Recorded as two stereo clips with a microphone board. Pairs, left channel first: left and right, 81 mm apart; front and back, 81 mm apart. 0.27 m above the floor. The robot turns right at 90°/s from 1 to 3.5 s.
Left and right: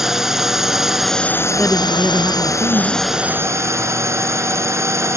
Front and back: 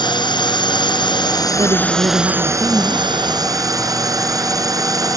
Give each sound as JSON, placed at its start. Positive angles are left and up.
{"t": 0.0, "sound": "a drone", "azimuth_deg": -5}
{"t": 1.6, "sound": "a woman speaking", "azimuth_deg": 150}